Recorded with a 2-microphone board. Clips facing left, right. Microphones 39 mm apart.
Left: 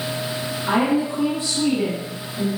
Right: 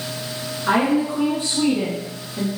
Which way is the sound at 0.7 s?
25° right (ahead or behind).